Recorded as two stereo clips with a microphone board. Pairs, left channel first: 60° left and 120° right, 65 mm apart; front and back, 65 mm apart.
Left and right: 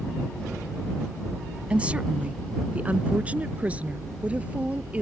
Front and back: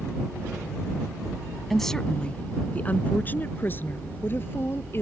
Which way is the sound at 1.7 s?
85° right.